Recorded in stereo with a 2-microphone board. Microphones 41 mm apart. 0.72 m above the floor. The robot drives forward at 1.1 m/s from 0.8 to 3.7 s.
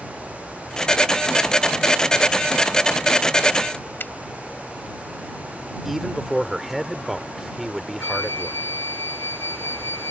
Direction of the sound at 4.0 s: 55° left (ahead or behind).